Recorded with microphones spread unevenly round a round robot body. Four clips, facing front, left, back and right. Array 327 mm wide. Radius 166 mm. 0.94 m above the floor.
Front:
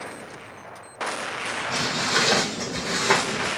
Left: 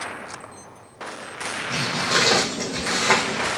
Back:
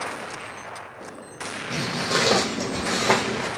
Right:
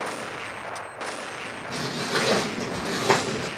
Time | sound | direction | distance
1.7 | footsteps | 150° left | 2 m